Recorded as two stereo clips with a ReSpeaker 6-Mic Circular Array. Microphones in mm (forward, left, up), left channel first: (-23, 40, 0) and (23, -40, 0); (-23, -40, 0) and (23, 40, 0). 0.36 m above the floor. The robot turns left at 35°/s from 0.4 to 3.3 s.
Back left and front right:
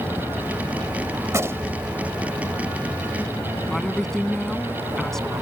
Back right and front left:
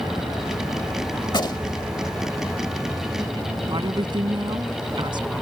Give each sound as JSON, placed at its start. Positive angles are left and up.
{"t": 1.3, "sound": "a gunshot", "azimuth_deg": -105}
{"t": 3.7, "sound": "a woman speaking", "azimuth_deg": 35}